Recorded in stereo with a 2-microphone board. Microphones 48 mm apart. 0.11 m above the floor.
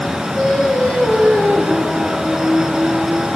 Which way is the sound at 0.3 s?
30° left (ahead or behind).